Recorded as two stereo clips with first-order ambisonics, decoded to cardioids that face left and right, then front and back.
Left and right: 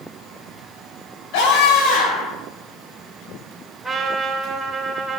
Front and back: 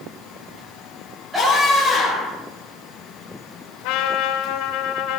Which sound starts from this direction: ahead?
A trumpet, at 3.8 s.